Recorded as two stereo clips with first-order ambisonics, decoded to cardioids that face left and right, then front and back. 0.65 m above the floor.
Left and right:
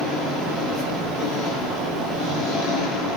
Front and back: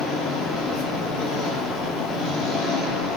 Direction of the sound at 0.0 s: 25° left.